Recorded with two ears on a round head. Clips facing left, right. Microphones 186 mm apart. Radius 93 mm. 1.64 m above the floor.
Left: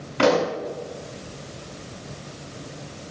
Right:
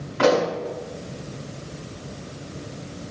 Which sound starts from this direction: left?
A pop, at 0.2 s.